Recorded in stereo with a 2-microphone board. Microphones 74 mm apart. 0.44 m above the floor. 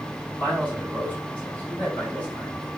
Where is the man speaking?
20° left (ahead or behind), 5.5 m.